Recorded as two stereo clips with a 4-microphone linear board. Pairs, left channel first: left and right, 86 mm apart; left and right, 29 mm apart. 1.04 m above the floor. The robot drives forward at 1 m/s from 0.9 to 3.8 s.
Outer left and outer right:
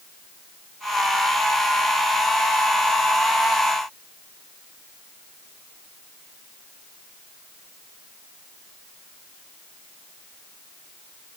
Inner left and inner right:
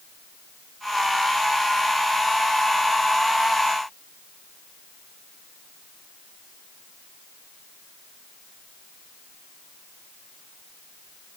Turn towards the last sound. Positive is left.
No sound to turn to.